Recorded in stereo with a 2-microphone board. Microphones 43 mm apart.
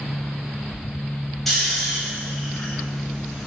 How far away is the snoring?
About 0.9 m.